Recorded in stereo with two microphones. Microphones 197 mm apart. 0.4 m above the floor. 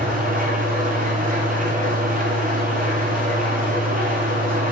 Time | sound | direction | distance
0.0 | an engine running | 40° right (ahead or behind) | 2.5 m